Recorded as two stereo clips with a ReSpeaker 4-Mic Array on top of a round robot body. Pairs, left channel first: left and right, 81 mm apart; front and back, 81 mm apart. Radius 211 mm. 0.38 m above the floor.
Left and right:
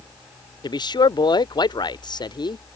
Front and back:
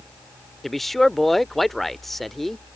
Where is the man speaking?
85° left.